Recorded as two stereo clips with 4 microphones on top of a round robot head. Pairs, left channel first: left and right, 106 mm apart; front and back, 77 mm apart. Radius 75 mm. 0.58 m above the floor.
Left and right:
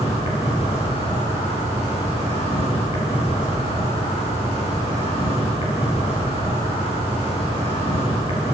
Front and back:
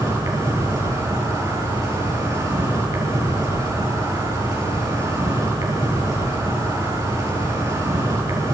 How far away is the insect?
About 6.5 m.